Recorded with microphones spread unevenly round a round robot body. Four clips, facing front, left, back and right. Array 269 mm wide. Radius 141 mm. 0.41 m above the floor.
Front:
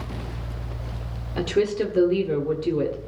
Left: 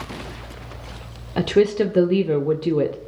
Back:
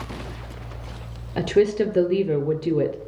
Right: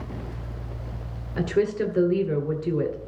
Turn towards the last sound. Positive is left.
turn(degrees=105)